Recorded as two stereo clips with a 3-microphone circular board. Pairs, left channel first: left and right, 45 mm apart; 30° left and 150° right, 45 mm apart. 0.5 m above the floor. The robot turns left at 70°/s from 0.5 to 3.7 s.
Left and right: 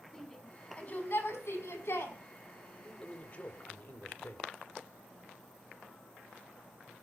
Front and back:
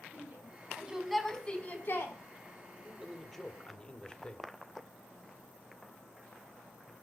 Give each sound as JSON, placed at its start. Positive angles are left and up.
{"t": 0.1, "sound": "a shout", "azimuth_deg": 165, "distance_m": 5.0}
{"t": 2.8, "sound": "a man speaking", "azimuth_deg": 150, "distance_m": 1.8}